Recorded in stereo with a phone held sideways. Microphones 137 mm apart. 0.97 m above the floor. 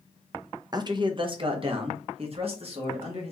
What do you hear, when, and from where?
0.7 s a man speaking: 30° right (ahead or behind), 0.6 m; by 3.3 s 50° right (ahead or behind), 1.8 m